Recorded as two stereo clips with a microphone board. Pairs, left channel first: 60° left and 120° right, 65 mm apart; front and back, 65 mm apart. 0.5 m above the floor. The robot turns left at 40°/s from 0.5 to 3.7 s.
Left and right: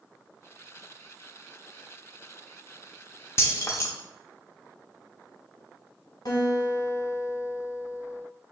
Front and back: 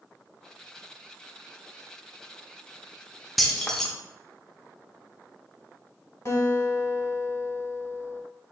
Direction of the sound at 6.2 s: 45° left.